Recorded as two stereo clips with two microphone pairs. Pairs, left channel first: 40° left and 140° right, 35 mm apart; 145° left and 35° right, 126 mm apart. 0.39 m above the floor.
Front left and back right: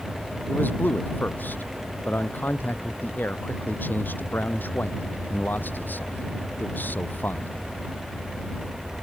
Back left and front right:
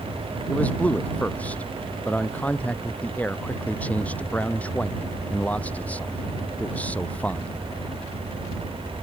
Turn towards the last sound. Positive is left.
turn(degrees=65)